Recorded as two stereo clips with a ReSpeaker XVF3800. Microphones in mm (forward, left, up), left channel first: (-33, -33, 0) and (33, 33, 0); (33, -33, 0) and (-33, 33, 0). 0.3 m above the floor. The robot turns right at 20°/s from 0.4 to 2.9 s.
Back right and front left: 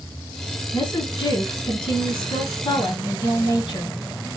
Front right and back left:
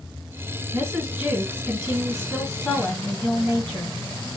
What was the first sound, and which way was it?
A woman speaking, 170° right.